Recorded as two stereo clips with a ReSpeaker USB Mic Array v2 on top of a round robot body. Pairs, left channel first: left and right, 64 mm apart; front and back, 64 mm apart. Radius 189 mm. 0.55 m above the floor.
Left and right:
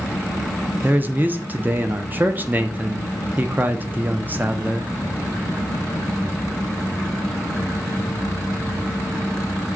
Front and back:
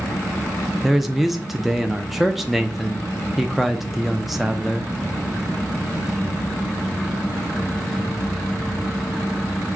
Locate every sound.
0.8 s a man speaking: 95° right, 0.6 m